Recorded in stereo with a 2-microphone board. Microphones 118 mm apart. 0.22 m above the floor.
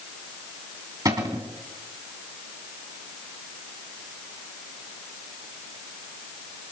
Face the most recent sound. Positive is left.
turn(degrees=-30)  # may be behind; listen again after turning